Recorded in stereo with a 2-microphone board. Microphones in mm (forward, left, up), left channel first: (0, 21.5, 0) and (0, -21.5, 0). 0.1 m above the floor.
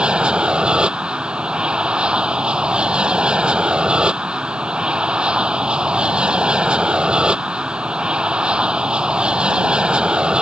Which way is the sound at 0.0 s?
20° right (ahead or behind).